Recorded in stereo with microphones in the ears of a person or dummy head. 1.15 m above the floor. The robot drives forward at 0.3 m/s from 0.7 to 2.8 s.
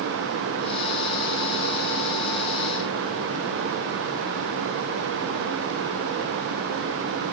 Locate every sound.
Only background noise.